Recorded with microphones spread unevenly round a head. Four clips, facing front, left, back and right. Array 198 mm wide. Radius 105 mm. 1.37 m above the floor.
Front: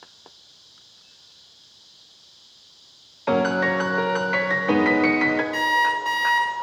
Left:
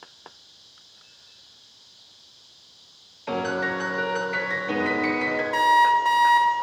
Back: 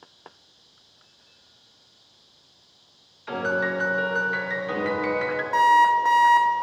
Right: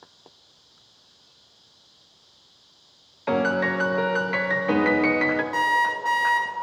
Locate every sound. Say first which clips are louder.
3.3 s a piano: right 4 dB, front 5 dB; 20° right, 0.8 m
5.5 s an alarm clock: left 10 dB, back 5 dB; straight behind, 1.2 m